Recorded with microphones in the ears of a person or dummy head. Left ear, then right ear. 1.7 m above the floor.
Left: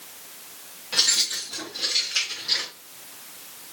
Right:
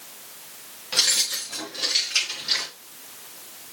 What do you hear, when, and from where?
0.9 s keys jangling: 10° right (ahead or behind), 1.8 m; by 2.7 s 30° right (ahead or behind), 3.5 m